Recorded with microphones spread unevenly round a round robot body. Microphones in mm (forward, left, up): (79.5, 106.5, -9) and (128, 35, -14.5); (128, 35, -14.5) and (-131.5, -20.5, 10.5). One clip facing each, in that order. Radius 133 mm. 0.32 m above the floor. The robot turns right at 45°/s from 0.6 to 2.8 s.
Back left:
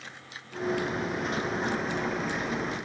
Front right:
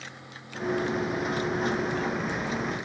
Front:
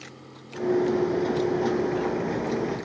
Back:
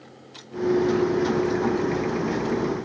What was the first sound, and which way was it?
Only background noise.